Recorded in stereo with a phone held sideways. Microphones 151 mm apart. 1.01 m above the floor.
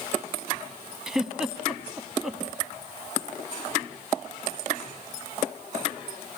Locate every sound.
1.1 s a giggle: 5° right (ahead or behind), 1.1 m